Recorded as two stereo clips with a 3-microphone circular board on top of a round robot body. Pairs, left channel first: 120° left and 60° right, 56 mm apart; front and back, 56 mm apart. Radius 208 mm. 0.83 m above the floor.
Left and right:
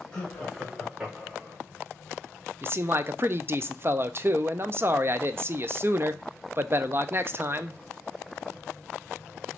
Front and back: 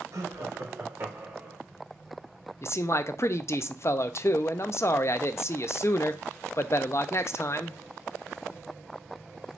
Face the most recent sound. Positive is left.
turn(degrees=-25)